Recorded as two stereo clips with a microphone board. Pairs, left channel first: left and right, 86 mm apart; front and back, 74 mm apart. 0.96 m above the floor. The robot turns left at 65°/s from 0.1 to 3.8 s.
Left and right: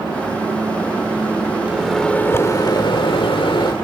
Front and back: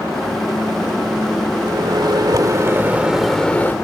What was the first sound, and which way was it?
A microwave, 165° right.